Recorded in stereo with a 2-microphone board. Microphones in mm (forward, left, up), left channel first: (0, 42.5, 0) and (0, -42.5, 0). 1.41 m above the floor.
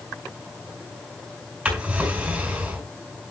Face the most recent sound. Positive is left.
turn(degrees=-15)  # may be behind; listen again after turning